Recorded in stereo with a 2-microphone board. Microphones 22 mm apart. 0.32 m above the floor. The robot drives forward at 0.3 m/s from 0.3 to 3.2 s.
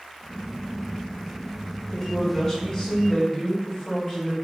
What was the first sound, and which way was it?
A woman speaking, 25° left (ahead or behind).